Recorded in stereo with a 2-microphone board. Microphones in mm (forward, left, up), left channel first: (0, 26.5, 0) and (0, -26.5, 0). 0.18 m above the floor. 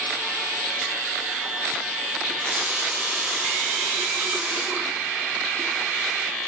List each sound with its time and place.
2.3 s a running tap: 25° right (ahead or behind), 0.9 m